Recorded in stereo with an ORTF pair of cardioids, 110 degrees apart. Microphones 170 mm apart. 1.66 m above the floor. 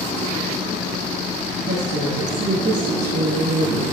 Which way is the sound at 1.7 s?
45° right.